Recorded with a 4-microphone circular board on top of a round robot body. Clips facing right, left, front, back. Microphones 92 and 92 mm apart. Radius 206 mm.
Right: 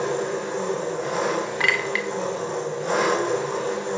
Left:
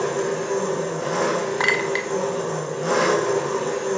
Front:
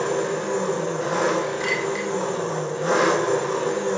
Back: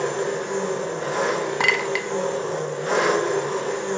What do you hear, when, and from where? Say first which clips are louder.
0.0 s an engine running: left 2 dB, front 1 dB; 65° left, 4 m
1.6 s a clink: left 2 dB, back 1 dB; 155° left, 0.7 m